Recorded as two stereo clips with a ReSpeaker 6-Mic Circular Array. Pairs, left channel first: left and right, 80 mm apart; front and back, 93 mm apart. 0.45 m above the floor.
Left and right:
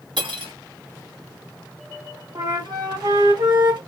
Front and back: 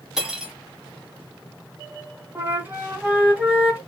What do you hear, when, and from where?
0.2 s cutlery clinking: 95° right, 1.8 m
2.4 s a flute: 110° right, 2 m